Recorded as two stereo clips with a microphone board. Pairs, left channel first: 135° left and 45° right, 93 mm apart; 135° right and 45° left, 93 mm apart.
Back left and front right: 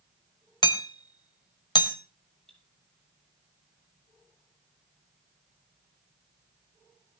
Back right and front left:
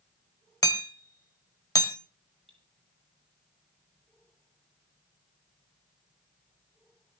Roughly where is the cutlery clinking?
Ahead left.